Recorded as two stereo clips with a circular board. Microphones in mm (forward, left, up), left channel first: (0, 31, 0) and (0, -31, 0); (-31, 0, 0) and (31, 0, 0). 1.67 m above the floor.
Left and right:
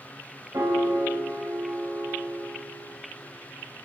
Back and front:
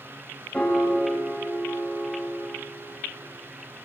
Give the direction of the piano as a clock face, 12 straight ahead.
3 o'clock.